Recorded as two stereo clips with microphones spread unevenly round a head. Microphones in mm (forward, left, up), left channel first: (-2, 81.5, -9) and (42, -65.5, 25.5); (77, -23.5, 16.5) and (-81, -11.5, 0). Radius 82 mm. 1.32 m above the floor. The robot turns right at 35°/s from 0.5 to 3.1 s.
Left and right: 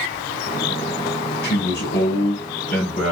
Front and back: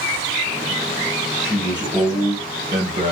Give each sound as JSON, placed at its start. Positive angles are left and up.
{"t": 1.4, "sound": "a man speaking", "azimuth_deg": 85, "distance_m": 0.9}